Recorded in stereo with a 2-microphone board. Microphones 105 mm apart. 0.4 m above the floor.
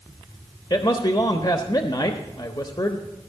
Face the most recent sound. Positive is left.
turn(degrees=45)  # may be behind; listen again after turning